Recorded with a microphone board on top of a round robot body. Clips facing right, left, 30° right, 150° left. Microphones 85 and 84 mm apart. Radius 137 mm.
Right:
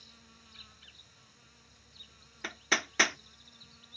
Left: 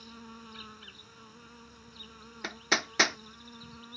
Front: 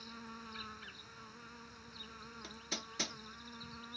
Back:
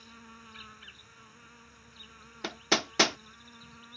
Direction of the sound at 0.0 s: 50° left.